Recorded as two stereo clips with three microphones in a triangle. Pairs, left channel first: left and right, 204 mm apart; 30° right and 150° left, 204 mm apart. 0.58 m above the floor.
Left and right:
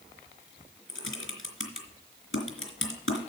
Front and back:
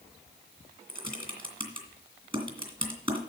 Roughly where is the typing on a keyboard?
Left.